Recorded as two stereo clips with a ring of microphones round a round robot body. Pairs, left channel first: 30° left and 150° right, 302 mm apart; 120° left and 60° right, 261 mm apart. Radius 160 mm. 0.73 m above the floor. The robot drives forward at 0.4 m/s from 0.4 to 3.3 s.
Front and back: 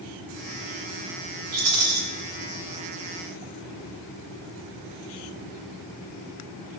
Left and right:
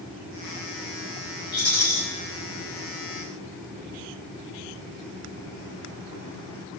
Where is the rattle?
175° left, 3.5 m.